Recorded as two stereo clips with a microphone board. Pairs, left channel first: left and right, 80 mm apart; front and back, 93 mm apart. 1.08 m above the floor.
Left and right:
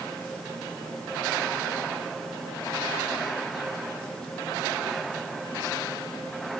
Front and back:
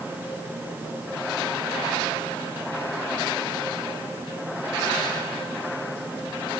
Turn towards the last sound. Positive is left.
No sound to turn to.